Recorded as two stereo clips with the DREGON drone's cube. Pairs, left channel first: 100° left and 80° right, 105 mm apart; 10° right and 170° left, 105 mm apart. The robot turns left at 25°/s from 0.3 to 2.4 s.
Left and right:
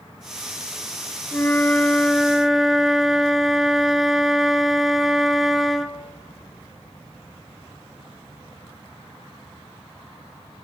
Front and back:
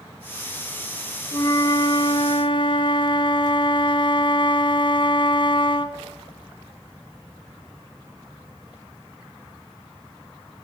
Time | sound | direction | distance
1.3 | a flute | 35° left | 1.0 m